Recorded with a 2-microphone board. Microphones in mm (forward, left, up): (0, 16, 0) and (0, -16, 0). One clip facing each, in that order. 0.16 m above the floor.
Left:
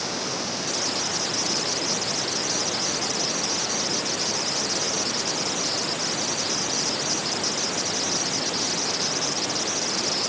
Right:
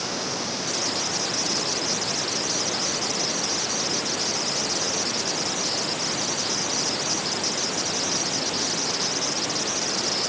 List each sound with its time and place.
Only background noise.